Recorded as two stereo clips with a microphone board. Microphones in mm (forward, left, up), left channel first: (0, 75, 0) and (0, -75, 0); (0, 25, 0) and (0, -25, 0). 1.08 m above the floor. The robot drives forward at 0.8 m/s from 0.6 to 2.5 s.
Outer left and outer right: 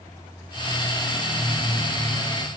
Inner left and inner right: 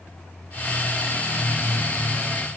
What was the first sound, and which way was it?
Only background noise.